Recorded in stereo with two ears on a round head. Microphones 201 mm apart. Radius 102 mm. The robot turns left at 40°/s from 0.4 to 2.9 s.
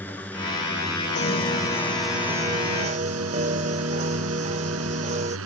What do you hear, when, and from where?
0.0 s a drone: 10° left (ahead or behind); by 5.5 s 70° right (ahead or behind)
1.1 s a piano: 35° left; by 5.4 s 35° right